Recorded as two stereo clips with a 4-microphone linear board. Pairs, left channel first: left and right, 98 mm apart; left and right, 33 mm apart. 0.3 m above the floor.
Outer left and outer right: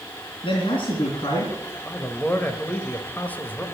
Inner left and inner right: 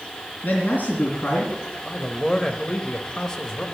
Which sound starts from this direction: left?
A man speaking, at 0.4 s.